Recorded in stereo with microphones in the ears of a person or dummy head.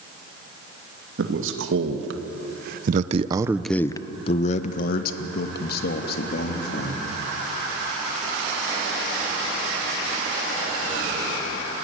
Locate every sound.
1.2 s a man speaking: 85° right, 2.5 m; by 7.0 s 65° left (ahead or behind), 3.5 m